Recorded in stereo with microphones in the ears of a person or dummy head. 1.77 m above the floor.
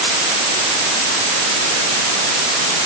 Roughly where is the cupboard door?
I don't hear a cupboard door.